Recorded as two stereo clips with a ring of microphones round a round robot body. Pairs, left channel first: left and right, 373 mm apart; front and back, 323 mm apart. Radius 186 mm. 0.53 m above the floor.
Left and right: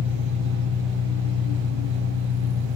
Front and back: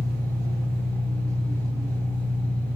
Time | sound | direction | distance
0.0 | an engine running | 100° right | 5.5 m